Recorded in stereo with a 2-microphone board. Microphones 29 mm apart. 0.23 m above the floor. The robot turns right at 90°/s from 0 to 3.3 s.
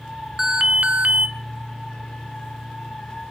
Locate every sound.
0.4 s an alarm: 160° right, 1.2 m; by 1.3 s 85° right, 1.2 m